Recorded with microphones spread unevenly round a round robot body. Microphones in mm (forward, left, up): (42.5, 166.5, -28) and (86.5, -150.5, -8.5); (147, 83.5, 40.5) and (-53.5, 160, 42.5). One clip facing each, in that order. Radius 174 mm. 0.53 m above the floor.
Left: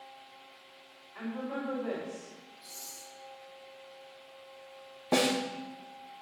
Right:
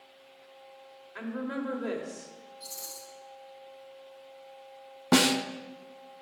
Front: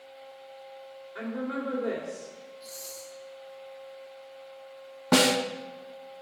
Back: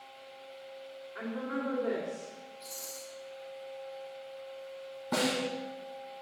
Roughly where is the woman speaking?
Right.